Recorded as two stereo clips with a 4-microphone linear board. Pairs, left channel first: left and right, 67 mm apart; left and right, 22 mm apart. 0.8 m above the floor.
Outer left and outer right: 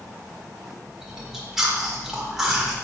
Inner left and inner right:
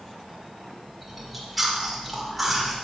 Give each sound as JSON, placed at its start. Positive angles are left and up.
{"t": 1.0, "sound": "chewing", "side_deg": -10, "distance_m": 1.2}